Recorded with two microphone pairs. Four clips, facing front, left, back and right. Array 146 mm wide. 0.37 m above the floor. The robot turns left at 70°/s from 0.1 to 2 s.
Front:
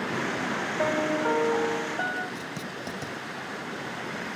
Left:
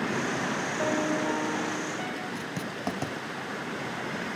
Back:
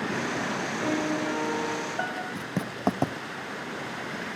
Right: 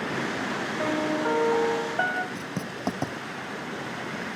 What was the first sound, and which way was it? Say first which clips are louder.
A piano: right 2 dB, front 3 dB; 10° right.